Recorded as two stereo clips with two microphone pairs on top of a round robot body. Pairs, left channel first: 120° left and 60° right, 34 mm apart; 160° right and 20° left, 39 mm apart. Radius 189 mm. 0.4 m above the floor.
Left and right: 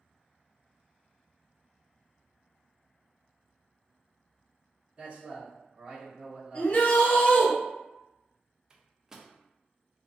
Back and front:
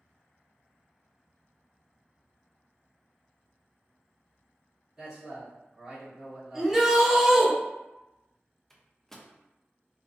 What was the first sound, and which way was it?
A man speaking, 60° right.